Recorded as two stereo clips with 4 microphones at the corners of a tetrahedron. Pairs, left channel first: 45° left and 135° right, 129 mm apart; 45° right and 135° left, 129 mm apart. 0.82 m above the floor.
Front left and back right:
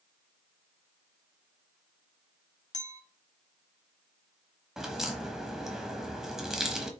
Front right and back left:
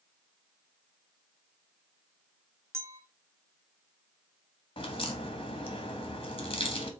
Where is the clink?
70° left, 1.0 m.